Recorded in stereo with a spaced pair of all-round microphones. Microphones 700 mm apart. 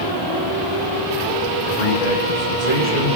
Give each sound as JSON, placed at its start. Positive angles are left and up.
{"t": 1.6, "sound": "a man speaking", "side_deg": 85, "distance_m": 4.0}